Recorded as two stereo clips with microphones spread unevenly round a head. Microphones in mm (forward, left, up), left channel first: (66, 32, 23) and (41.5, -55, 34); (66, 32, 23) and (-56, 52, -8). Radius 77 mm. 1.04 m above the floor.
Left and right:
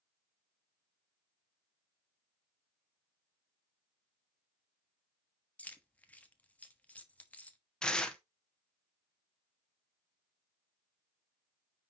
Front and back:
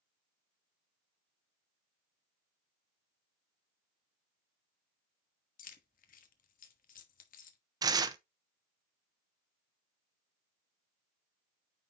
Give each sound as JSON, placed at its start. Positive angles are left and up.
{"t": 5.6, "sound": "keys jangling", "azimuth_deg": 0, "distance_m": 1.2}
{"t": 7.8, "sound": "tearing paper", "azimuth_deg": 145, "distance_m": 0.8}